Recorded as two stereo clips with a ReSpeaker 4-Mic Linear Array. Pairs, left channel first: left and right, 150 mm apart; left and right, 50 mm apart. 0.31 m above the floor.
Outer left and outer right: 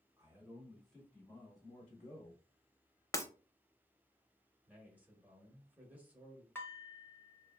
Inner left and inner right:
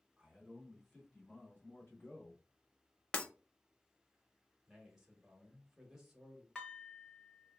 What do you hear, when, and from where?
0.2 s a man speaking: 20° right (ahead or behind), 1.1 m; by 2.4 s 45° left (ahead or behind), 1.4 m
3.1 s breaking glass: 20° left (ahead or behind), 0.5 m
4.7 s a man speaking: 10° right (ahead or behind), 0.9 m
6.5 s dishes clattering: 15° left (ahead or behind), 0.7 m